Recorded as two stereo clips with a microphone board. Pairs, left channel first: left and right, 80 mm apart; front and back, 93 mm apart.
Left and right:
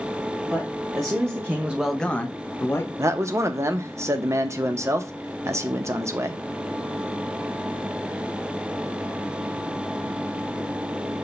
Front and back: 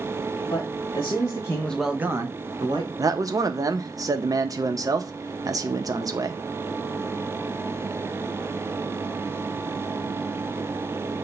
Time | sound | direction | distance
0.5 | a man speaking | 40° right | 1.6 m
3.0 | a man speaking | 135° right | 0.6 m